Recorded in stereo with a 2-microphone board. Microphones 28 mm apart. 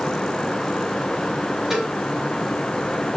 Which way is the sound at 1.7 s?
15° right (ahead or behind).